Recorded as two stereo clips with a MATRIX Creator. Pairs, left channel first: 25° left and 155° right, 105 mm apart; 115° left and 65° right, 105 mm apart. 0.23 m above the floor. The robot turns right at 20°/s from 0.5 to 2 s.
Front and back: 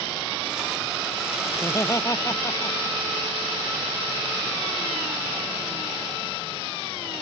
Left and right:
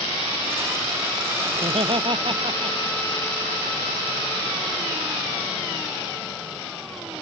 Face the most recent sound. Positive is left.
turn(degrees=-35)